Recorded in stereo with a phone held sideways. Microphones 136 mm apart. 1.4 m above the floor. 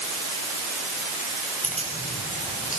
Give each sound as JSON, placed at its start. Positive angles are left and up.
{"t": 1.6, "sound": "keys jangling", "side_deg": 70, "distance_m": 8.0}